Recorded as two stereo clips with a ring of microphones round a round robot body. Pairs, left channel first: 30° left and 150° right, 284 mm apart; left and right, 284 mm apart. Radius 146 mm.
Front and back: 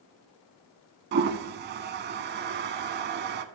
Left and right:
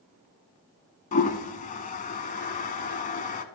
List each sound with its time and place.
1.1 s a toilet flushing: 155° left, 0.5 m